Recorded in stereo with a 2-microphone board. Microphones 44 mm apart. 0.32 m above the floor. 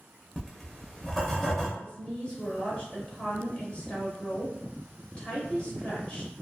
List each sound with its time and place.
0.4 s writing: 10° left (ahead or behind), 0.7 m
1.8 s a woman speaking: 25° left (ahead or behind), 0.9 m